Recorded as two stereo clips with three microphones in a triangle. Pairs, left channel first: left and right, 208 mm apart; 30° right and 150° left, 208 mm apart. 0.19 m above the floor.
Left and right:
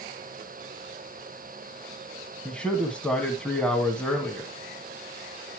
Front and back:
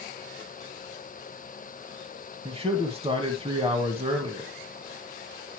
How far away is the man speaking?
About 1.6 m.